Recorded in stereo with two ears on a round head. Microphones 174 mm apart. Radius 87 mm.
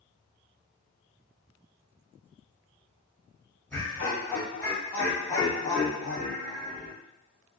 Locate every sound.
3.7 s laughter: 10° left (ahead or behind), 1.8 m